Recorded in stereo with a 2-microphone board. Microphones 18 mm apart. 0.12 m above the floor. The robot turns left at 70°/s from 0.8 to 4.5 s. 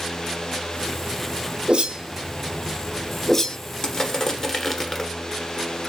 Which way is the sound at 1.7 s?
80° right.